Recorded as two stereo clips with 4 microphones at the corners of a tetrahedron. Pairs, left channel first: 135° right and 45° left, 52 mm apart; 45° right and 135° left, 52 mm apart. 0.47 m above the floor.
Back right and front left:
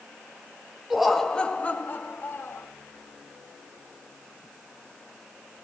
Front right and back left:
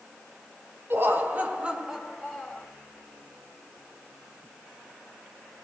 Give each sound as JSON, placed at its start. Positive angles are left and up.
{"t": 0.9, "sound": "laughter", "azimuth_deg": 125, "distance_m": 1.6}